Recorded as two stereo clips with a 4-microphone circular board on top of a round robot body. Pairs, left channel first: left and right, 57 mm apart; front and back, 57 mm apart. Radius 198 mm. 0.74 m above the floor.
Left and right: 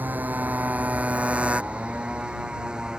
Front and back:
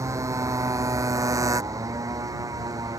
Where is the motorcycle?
150° right; by 3.0 s 170° right.